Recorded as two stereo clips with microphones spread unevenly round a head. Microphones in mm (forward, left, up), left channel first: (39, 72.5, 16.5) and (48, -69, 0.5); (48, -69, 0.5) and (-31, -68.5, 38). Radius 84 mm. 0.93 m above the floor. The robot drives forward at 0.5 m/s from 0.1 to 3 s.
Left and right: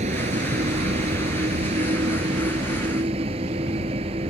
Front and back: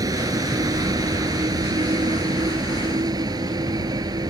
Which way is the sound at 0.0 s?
140° right.